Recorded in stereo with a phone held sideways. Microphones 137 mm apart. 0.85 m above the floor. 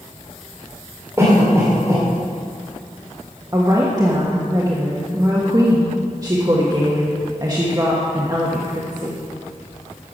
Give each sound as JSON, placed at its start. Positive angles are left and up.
{"t": 1.2, "sound": "a cough", "side_deg": -20, "distance_m": 2.5}
{"t": 3.5, "sound": "a woman speaking", "side_deg": -30, "distance_m": 1.2}